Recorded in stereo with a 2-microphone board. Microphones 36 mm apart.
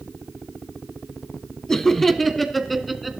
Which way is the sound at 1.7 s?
15° left (ahead or behind).